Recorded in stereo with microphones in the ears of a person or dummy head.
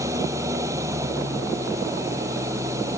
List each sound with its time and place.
0.0 s an engine running: 20° right (ahead or behind)